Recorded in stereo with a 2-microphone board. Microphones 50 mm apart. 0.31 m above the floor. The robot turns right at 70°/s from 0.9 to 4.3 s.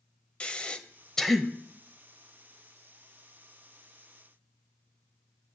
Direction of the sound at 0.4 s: 25° left (ahead or behind).